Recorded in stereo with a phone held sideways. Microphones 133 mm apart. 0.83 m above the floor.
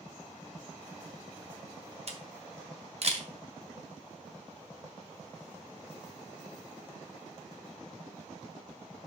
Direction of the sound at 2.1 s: 55° right (ahead or behind).